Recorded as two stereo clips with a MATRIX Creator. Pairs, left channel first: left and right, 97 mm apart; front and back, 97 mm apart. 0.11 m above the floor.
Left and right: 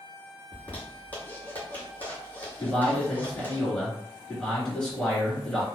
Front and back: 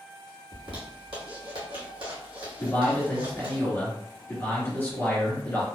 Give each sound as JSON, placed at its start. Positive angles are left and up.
{"t": 0.5, "sound": "a zipper", "azimuth_deg": 160, "distance_m": 1.5}
{"t": 2.6, "sound": "a man speaking", "azimuth_deg": 20, "distance_m": 1.7}